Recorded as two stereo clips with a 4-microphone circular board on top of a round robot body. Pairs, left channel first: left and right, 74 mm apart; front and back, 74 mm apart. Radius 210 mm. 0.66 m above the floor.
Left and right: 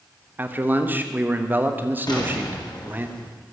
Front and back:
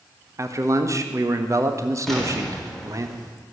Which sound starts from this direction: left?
An explosion, at 2.1 s.